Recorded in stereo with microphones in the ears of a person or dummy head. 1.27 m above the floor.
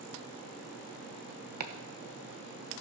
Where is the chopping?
45° right (ahead or behind), 0.8 m.